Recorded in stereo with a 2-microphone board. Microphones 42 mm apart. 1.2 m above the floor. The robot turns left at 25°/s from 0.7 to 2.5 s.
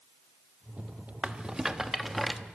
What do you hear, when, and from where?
1.2 s a rattle: 20° right (ahead or behind), 0.9 m; by 2.4 s 5° left (ahead or behind), 0.9 m